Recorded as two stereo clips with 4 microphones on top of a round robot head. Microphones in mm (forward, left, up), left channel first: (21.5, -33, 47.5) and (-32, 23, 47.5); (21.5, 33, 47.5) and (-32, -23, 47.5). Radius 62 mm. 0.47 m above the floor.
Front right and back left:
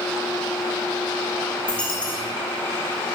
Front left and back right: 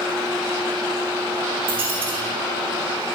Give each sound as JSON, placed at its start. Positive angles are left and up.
{"t": 1.7, "sound": "a dropped coin", "azimuth_deg": -125, "distance_m": 3.5}